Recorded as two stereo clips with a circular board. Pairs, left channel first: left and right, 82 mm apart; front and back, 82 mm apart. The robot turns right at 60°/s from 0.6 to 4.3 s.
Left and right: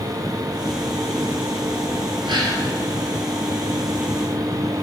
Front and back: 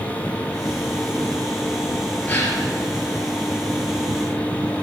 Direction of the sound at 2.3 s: 70° right.